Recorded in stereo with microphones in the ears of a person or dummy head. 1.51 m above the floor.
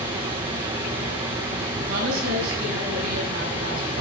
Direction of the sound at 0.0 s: 20° right (ahead or behind).